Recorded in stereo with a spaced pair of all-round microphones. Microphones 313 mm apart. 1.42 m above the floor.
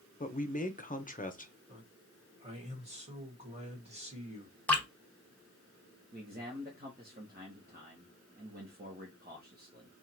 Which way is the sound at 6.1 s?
30° right (ahead or behind).